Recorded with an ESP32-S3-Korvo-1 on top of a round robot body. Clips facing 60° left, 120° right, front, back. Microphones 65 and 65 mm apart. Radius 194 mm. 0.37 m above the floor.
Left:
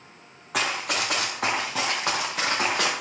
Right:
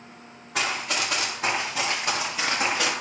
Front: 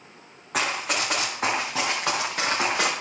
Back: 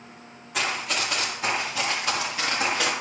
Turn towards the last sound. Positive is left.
turn(degrees=30)